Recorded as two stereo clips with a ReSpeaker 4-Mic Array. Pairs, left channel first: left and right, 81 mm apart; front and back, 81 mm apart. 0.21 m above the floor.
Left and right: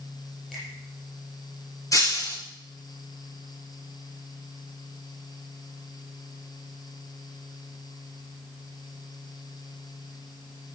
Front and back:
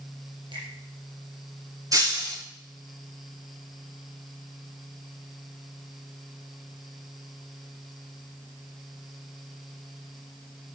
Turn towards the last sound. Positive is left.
turn(degrees=135)